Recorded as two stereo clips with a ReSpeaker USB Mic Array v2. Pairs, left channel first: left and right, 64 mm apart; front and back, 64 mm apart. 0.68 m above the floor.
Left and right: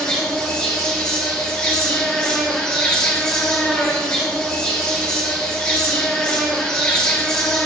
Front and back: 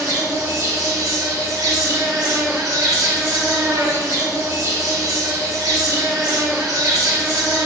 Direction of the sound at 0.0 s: 165° left.